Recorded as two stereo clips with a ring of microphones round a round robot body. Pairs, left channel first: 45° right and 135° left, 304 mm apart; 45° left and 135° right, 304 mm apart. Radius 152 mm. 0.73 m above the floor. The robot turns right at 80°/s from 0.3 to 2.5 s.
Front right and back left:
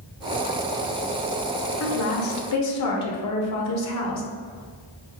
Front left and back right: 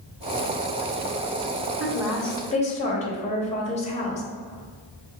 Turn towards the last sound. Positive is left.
turn(degrees=-20)